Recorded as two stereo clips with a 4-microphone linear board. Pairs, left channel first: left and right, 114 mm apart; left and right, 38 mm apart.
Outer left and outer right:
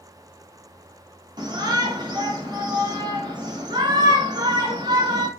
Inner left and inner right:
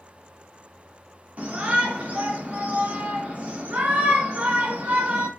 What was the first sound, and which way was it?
A shout, 40° right (ahead or behind).